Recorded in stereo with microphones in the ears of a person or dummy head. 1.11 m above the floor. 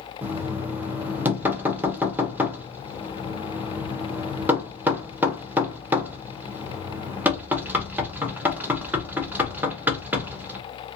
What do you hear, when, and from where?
0.2 s knocking: 10° right (ahead or behind), 0.6 m